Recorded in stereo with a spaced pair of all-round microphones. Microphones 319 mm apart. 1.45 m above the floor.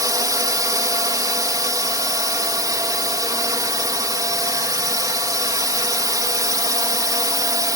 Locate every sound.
0.0 s a drone: 10° right (ahead or behind)